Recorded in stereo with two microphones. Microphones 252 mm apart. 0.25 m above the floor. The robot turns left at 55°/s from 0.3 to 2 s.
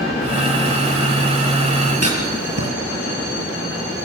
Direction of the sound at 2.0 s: 75° right (ahead or behind).